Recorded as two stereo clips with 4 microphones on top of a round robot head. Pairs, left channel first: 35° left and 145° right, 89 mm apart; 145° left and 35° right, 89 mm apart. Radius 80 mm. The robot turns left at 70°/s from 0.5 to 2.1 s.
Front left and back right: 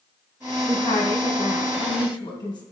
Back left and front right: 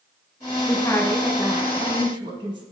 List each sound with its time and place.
0.7 s a woman speaking: 95° left, 3.5 m; by 2.6 s 5° right, 3.5 m